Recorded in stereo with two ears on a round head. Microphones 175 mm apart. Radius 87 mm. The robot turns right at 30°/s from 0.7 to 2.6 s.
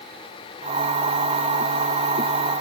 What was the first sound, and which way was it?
Only background noise.